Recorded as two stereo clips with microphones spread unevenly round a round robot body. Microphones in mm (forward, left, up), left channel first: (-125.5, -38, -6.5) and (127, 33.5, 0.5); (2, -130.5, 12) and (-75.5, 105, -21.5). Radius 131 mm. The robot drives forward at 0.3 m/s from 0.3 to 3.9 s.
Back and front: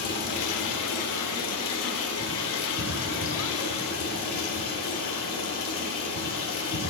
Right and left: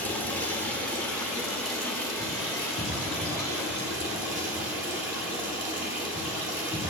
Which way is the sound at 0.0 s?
160° right.